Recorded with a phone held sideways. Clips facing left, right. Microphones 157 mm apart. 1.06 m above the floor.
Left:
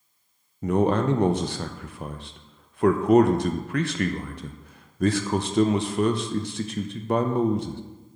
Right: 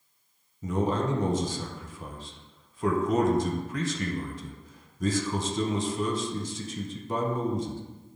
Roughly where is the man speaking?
Left.